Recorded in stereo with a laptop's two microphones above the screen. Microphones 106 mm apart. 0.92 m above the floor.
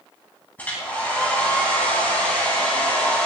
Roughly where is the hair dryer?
Centre.